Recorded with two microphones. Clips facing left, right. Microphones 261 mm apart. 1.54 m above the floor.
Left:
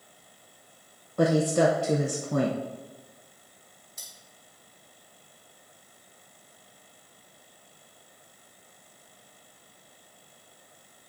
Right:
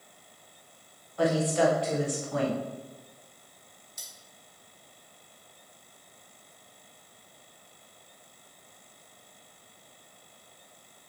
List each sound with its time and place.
1.2 s a woman speaking: 50° left (ahead or behind), 0.6 m
4.0 s cutlery clinking: 65° left (ahead or behind), 1.7 m